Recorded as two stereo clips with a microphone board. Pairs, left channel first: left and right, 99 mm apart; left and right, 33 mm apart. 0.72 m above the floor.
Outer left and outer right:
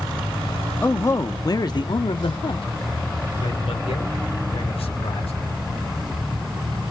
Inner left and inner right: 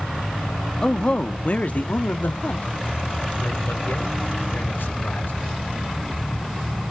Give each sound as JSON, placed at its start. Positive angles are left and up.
{"t": 0.8, "sound": "a man speaking", "side_deg": 20, "distance_m": 0.8}